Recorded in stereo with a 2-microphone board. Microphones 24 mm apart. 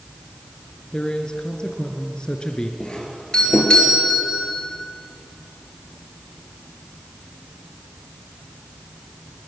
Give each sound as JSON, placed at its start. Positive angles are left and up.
{"t": 0.9, "sound": "a man speaking", "side_deg": 35, "distance_m": 2.5}
{"t": 2.8, "sound": "a doorbell", "side_deg": 40, "distance_m": 4.0}